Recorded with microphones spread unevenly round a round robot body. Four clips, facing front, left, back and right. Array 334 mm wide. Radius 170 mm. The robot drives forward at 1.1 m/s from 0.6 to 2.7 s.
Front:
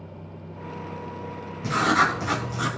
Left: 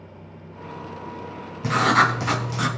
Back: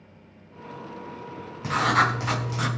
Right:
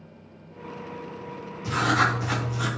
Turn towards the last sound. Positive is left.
turn(degrees=115)